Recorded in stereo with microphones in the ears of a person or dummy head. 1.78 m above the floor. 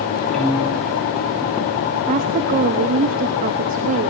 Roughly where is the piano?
Centre.